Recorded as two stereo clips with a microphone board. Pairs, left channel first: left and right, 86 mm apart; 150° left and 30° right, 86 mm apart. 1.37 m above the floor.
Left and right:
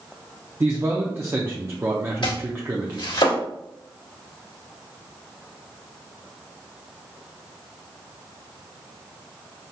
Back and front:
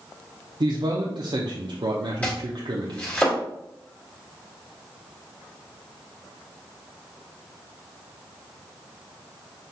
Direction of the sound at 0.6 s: 30° right.